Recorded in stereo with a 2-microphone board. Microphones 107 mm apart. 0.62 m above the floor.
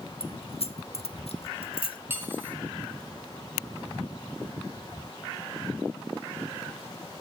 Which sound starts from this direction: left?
Keys jangling, at 0.2 s.